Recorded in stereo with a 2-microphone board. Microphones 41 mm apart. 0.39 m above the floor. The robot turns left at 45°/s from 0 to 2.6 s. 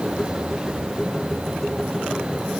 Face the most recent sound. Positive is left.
No sound to turn to.